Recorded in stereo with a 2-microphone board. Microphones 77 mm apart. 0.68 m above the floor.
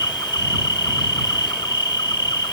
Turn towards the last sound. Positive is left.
turn(degrees=65)  # may be behind; listen again after turning